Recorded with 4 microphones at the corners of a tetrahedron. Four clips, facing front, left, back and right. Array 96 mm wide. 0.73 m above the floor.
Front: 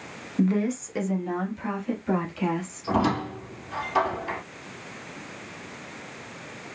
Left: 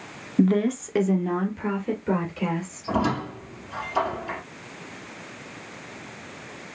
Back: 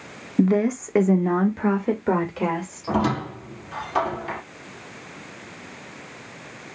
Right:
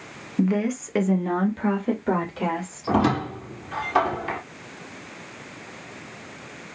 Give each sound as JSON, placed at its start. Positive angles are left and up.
{"t": 0.4, "sound": "a woman speaking", "azimuth_deg": 140, "distance_m": 0.9}
{"t": 2.9, "sound": "a squeak", "azimuth_deg": -90, "distance_m": 1.7}